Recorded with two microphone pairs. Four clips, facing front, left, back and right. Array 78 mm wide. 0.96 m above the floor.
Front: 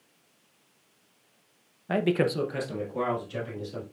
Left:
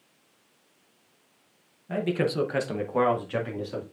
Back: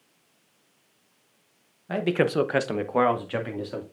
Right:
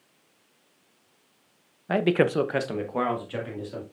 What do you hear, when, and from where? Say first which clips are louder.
1.9 s a man speaking: right 5 dB, back 1 dB; 75° right, 0.7 m; by 3.8 s 165° left, 2 m